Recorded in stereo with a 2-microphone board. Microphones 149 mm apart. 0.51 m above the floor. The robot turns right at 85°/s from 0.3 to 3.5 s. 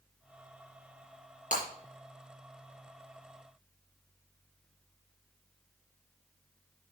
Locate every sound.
1.5 s breaking glass: 60° left (ahead or behind), 5 m; by 1.6 s 70° left (ahead or behind), 5 m